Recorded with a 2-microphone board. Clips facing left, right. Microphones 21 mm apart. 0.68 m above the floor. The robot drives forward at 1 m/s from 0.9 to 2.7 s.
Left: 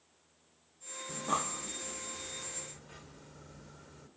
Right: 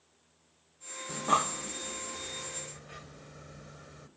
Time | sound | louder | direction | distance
1.1 | breathing | right 6 dB | 30° right (ahead or behind) | 0.7 m